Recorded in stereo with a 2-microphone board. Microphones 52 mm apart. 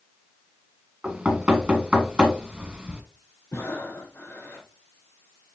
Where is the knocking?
20° right (ahead or behind), 1.4 m.